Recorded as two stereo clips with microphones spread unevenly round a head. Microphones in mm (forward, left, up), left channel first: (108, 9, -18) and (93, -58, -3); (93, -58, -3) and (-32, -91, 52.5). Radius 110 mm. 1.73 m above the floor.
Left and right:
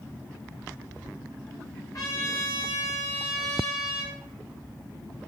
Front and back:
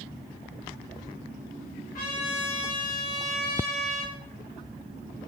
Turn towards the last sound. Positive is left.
turn(degrees=40)